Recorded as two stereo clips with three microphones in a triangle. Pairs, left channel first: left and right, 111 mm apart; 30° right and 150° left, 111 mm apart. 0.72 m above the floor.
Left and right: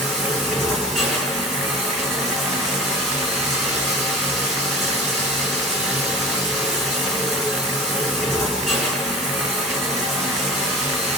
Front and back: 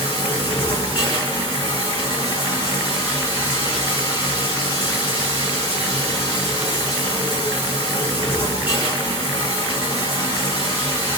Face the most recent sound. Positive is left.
turn(degrees=5)